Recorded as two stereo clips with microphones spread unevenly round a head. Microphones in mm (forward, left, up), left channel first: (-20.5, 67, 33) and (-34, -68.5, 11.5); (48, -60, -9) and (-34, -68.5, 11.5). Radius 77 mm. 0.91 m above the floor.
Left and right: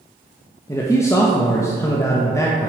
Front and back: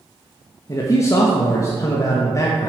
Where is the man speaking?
10° left, 1.0 m.